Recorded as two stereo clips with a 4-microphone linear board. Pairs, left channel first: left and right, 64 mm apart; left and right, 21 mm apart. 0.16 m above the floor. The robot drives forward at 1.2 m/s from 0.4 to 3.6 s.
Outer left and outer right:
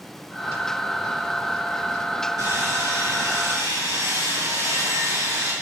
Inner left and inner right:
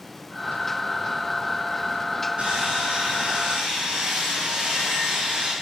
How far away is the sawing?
About 4 m.